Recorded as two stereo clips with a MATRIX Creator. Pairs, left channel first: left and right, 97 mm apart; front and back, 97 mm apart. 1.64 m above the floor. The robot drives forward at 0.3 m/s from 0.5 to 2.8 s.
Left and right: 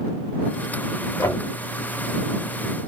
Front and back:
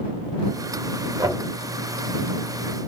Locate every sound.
1.2 s knocking: 140° left, 1.4 m; by 1.4 s 145° left, 1.4 m